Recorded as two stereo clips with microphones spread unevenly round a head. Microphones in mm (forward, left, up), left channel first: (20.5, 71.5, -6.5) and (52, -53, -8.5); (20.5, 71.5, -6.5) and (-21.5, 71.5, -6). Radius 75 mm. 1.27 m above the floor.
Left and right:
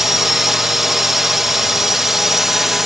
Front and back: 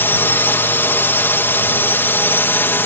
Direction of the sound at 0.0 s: 10° left.